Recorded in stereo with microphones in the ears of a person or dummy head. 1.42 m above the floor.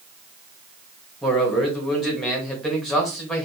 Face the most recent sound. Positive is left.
turn(degrees=5)  # may be behind; listen again after turning